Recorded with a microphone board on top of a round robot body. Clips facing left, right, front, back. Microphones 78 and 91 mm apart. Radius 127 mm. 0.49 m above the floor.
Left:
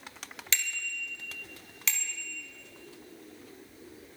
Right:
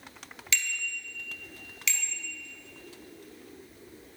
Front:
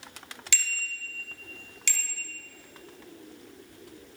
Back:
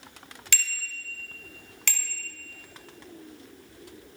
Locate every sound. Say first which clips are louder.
0.5 s a bicycle bell: right 2 dB, back 1 dB; 140° left, 2.5 m